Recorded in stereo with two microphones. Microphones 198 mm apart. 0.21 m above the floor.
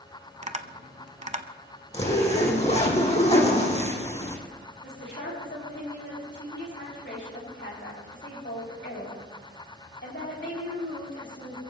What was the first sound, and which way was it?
Tapping, 35° right (ahead or behind).